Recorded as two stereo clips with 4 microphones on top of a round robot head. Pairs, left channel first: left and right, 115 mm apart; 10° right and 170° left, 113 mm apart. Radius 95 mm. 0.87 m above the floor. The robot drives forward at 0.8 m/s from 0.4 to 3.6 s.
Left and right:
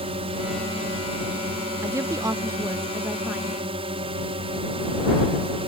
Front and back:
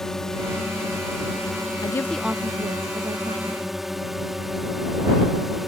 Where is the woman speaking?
40° right; by 3.8 s 170° right.